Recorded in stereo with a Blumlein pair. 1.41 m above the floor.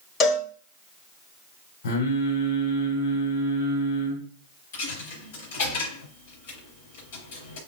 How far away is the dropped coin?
About 5.5 m.